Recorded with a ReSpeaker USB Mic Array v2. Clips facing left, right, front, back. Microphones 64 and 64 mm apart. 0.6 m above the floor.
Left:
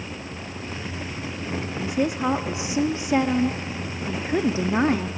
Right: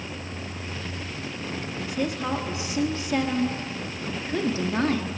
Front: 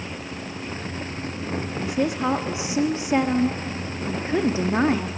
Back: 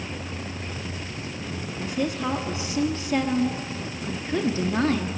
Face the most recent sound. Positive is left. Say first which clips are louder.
# left 5 dB, front 3 dB
turn(degrees=45)